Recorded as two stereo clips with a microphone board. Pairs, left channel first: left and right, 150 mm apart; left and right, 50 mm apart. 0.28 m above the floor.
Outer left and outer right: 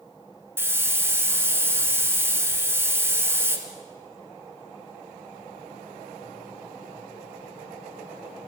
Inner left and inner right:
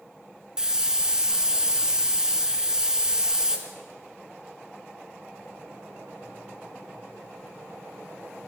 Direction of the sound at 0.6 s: 15° right (ahead or behind).